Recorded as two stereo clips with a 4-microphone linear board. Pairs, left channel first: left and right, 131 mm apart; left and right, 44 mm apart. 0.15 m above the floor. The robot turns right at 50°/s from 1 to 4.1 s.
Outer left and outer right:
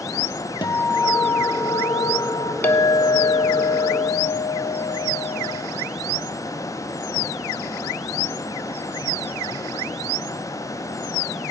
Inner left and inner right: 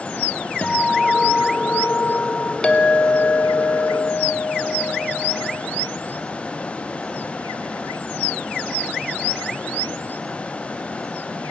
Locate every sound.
0.6 s a guitar: 40° left, 0.9 m; by 2.5 s 120° left, 0.9 m
2.6 s a clink: 20° left (ahead or behind), 0.7 m; by 5.6 s 25° left (ahead or behind), 0.7 m